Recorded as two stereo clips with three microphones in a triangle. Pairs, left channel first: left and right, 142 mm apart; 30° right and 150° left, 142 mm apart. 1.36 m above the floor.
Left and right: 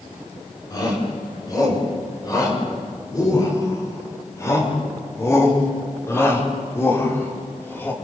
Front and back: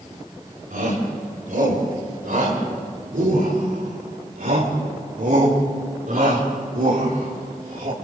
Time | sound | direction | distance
0.7 | a shout | 150° left | 8 m